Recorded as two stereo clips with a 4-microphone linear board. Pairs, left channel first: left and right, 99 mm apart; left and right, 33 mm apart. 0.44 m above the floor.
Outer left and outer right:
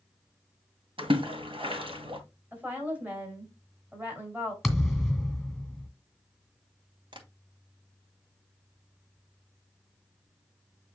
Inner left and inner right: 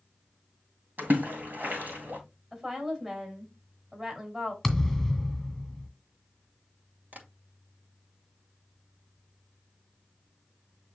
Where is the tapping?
55° right (ahead or behind), 2.0 m.